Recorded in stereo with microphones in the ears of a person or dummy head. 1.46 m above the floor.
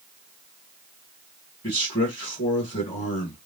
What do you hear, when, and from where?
1.6 s a man speaking: 25° left (ahead or behind), 1.3 m